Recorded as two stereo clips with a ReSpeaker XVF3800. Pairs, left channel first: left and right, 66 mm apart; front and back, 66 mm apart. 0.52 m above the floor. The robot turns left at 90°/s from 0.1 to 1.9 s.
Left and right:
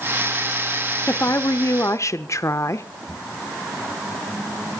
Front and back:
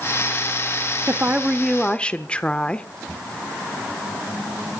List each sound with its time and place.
1.1 s a woman speaking: 140° left, 1.0 m; by 2.9 s 65° left, 1.0 m